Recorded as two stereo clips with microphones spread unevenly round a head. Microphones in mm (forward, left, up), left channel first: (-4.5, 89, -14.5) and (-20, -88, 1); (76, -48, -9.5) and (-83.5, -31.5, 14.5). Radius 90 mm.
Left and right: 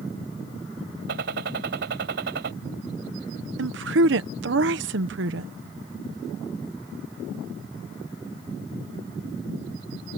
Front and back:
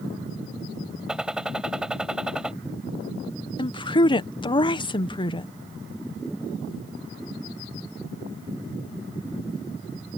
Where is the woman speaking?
65° right.